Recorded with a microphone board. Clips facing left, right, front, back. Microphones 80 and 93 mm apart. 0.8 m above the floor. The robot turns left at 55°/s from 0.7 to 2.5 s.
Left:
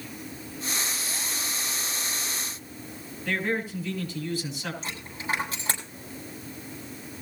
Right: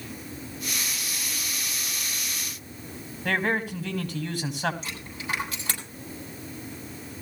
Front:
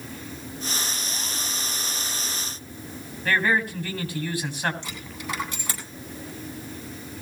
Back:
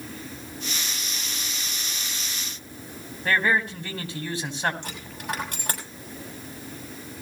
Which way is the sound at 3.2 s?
110° right.